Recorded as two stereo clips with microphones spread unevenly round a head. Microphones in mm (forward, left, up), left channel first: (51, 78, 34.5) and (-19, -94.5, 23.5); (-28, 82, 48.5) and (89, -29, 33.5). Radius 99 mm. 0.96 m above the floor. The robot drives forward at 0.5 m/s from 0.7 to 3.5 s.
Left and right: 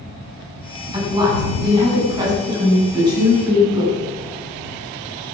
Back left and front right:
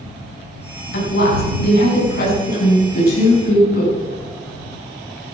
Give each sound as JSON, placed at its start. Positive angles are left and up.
{"t": 0.9, "sound": "a woman speaking", "azimuth_deg": 180, "distance_m": 6.5}